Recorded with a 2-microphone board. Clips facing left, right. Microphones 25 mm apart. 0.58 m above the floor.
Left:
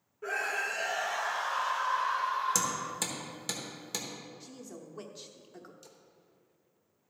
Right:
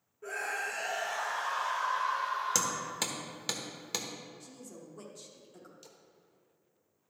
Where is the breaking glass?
I don't hear breaking glass.